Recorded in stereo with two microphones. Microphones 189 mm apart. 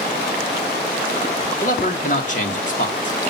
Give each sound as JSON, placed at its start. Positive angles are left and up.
{"t": 1.6, "sound": "a man speaking", "side_deg": 45, "distance_m": 2.0}